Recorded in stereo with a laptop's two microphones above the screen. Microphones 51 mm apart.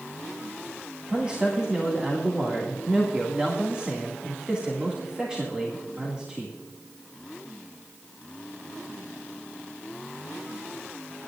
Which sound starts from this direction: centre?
A man speaking, at 1.1 s.